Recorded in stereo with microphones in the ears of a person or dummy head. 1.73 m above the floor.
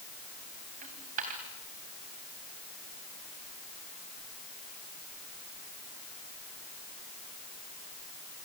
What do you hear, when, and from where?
0.8 s a dropped coin: 40° right (ahead or behind), 2.5 m